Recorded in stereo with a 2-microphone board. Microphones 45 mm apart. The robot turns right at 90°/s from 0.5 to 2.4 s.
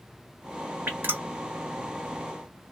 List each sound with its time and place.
0.9 s dripping: 55° right (ahead or behind), 1.5 m; by 1.2 s 40° right (ahead or behind), 1.5 m